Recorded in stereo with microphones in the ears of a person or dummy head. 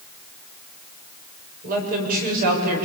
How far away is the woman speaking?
About 7 m.